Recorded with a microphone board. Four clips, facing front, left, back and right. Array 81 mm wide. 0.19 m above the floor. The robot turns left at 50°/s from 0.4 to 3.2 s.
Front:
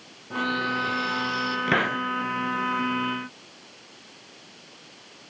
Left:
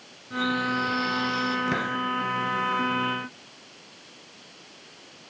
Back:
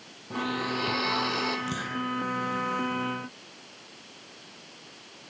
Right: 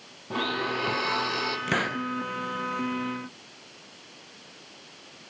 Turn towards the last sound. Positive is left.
turn(degrees=-85)